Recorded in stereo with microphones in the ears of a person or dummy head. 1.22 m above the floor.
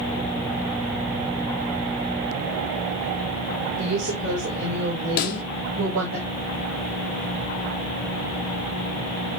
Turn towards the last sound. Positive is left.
turn(degrees=55)  # may be behind; listen again after turning